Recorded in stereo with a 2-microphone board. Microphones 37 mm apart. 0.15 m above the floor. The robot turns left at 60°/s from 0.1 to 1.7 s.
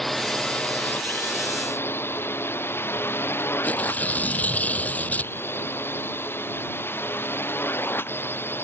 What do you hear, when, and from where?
0.0 s a drone: 5° left (ahead or behind); by 8.6 s 75° left (ahead or behind)
3.6 s tearing paper: 45° left (ahead or behind)